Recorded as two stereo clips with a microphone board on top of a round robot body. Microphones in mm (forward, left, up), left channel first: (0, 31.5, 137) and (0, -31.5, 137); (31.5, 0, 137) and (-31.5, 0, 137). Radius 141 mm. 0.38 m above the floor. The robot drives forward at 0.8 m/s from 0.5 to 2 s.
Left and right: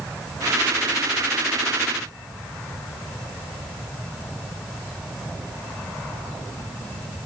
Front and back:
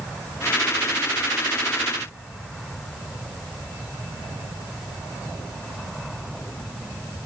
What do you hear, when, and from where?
Only background noise.